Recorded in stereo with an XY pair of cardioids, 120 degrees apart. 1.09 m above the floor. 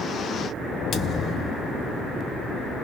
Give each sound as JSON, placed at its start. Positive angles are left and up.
{"t": 0.9, "sound": "a thud", "azimuth_deg": 45, "distance_m": 1.1}